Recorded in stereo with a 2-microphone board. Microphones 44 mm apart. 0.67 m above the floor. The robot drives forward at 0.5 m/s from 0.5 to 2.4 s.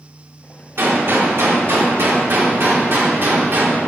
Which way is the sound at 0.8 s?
60° right (ahead or behind).